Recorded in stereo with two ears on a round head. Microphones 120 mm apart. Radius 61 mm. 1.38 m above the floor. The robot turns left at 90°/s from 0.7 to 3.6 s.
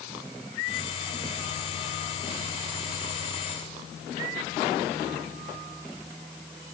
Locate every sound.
Only background noise.